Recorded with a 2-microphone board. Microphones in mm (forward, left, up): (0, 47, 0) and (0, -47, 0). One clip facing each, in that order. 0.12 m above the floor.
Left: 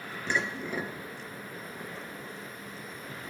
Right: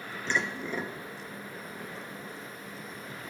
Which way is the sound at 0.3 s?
10° left (ahead or behind).